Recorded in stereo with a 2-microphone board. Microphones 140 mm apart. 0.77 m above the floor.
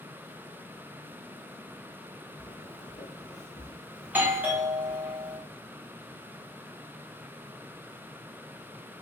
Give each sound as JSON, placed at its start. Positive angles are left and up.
{"t": 2.4, "sound": "footsteps", "side_deg": 30, "distance_m": 1.0}
{"t": 4.0, "sound": "a doorbell", "side_deg": -10, "distance_m": 0.8}